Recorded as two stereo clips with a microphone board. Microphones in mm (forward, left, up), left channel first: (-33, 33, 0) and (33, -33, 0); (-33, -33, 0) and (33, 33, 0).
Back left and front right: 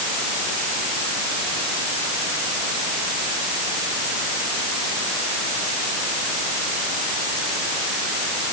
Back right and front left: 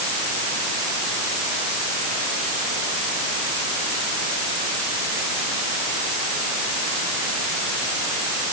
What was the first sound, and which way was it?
Only background noise.